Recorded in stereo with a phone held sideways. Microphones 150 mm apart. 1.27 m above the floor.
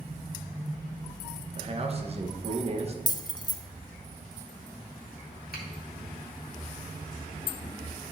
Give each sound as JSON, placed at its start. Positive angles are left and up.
{"t": 1.6, "sound": "a man speaking", "side_deg": -40, "distance_m": 1.0}
{"t": 3.1, "sound": "keys jangling", "side_deg": 25, "distance_m": 0.6}
{"t": 5.5, "sound": "a finger snap", "side_deg": 85, "distance_m": 2.0}